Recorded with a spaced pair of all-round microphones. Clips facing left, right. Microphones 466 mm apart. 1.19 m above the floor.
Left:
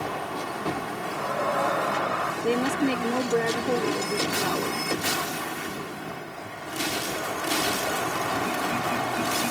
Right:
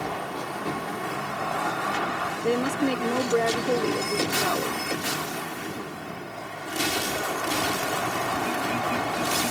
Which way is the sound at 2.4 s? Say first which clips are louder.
Even; 5° left (ahead or behind).